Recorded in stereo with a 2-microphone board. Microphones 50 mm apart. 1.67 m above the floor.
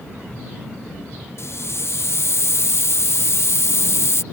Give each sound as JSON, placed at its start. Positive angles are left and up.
{"t": 1.4, "sound": "a hiss", "side_deg": 60}